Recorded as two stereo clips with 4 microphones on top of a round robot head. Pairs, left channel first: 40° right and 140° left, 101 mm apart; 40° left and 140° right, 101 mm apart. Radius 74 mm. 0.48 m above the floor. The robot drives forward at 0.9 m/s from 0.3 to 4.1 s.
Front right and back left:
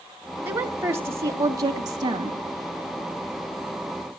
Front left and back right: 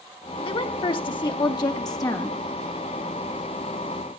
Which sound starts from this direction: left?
A woman speaking, at 0.5 s.